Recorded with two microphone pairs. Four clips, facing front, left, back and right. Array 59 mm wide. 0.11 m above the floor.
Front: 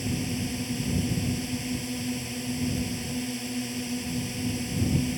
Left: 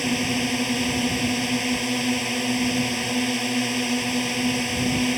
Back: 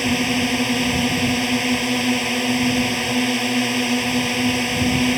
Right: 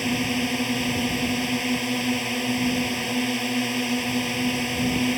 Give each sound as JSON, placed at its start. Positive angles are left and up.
{"t": 0.0, "sound": "a drone", "azimuth_deg": 175}